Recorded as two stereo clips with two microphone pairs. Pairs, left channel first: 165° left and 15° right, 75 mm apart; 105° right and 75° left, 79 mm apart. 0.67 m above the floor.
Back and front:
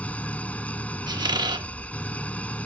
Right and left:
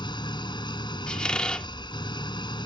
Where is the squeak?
25° right.